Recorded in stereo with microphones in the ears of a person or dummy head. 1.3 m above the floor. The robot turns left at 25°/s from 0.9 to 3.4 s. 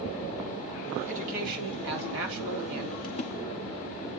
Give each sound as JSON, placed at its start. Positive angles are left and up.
{"t": 1.1, "sound": "a man speaking", "azimuth_deg": -40, "distance_m": 3.0}
{"t": 3.0, "sound": "a splash", "side_deg": 30, "distance_m": 1.2}